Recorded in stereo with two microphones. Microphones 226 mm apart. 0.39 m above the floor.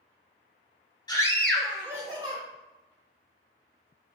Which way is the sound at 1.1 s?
20° left (ahead or behind).